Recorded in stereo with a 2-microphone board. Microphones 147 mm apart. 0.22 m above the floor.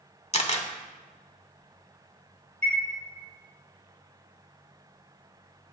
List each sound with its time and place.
0.3 s a camera shutter: 45° left (ahead or behind), 0.8 m
2.6 s a chime: 50° right (ahead or behind), 3 m